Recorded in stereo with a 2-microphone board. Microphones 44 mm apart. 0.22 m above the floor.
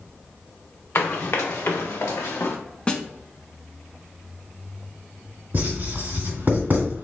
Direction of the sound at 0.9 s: 55° left (ahead or behind).